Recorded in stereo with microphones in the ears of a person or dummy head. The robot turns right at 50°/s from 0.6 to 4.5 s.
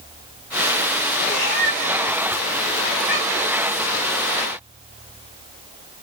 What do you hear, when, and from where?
1.2 s a cat meowing: 35° left (ahead or behind), 1.7 m; by 3.5 s 15° right (ahead or behind), 1.7 m